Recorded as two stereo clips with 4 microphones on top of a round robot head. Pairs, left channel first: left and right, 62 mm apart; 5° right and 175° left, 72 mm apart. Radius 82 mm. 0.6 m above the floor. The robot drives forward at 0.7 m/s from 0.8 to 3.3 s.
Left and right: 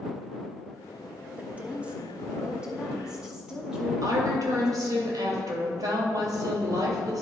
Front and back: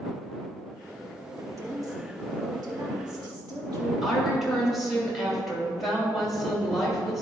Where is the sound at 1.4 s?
150° right, 1.1 m; by 5.0 s 170° right, 2 m.